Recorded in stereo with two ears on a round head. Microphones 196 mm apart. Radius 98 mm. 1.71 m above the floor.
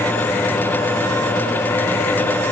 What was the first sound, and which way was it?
Only background noise.